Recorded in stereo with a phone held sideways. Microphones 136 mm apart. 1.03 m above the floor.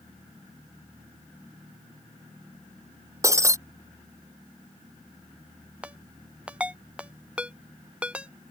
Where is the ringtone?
10° right (ahead or behind).